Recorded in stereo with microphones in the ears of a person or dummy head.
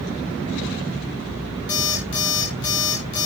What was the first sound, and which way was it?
An alarm clock, 20° left (ahead or behind).